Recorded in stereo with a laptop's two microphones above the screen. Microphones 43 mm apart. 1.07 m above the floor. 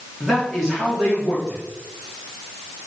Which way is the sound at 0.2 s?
5° right (ahead or behind).